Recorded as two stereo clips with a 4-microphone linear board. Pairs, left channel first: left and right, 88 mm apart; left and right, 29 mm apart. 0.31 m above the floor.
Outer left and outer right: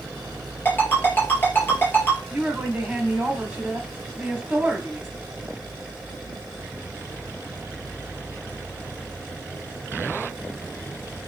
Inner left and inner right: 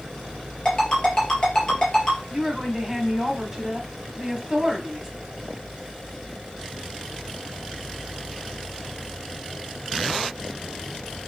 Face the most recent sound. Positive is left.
turn(degrees=-10)  # may be behind; listen again after turning